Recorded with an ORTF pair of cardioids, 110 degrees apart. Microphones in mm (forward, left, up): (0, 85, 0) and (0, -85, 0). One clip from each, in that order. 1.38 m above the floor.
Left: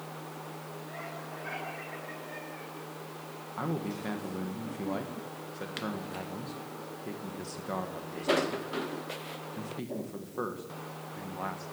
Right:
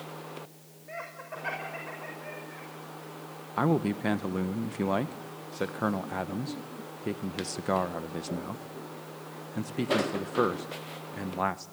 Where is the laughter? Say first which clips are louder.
Right 4 dB; 50° right, 6 m.